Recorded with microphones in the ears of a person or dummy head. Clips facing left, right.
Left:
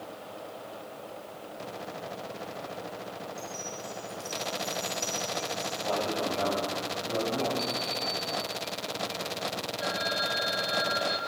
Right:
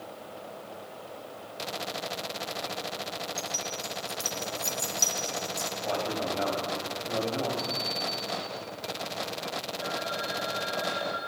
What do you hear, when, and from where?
3.4 s keys jangling: 50° right (ahead or behind), 1.9 m; by 5.7 s 75° right (ahead or behind), 2.5 m
5.8 s a man speaking: 5° left (ahead or behind), 8.5 m
7.6 s an alarm clock: 35° left (ahead or behind), 1.7 m
9.8 s a phone ringing: 30° left (ahead or behind), 3 m